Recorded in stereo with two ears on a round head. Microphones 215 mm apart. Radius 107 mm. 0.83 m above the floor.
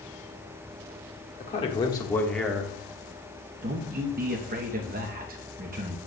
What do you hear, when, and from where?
1.4 s a man speaking: 30° left (ahead or behind), 1.4 m; by 2.7 s 10° right (ahead or behind), 1.1 m
3.6 s a man speaking: 35° right (ahead or behind), 0.8 m